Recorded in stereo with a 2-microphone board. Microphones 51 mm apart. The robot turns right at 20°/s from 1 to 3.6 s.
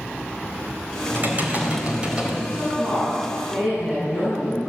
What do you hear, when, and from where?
1.1 s typing on a keyboard: 40° right (ahead or behind), 4 m; by 2.4 s 15° right (ahead or behind), 4 m
2.5 s a woman speaking: 25° right (ahead or behind), 10 m; by 4.7 s 5° right (ahead or behind), 10 m